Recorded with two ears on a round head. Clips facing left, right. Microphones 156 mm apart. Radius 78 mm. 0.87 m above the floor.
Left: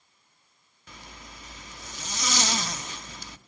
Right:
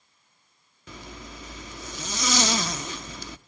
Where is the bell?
I don't hear a bell.